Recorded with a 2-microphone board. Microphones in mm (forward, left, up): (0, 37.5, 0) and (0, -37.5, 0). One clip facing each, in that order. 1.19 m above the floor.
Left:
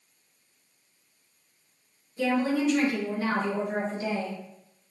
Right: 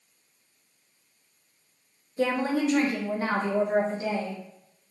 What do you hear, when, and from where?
2.2 s a woman speaking: 40° right (ahead or behind), 0.5 m; by 4.4 s 35° right (ahead or behind), 1.7 m